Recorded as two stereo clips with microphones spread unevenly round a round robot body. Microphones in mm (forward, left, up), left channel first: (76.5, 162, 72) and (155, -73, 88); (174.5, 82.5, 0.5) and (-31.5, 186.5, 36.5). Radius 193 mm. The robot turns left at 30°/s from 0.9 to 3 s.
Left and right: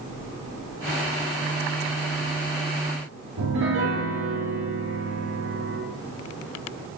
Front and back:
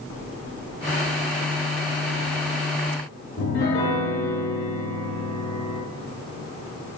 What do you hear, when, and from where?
3.4 s a piano: 65° right, 0.5 m